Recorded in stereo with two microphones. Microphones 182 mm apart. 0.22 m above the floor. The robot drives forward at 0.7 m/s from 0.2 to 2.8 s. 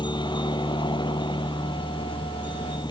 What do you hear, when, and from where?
0.0 s a helicopter: 25° left (ahead or behind)